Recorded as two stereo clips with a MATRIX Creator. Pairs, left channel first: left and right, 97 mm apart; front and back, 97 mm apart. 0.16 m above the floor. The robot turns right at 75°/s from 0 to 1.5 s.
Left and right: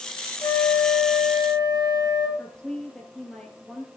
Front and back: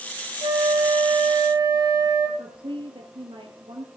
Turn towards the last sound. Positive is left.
turn(degrees=170)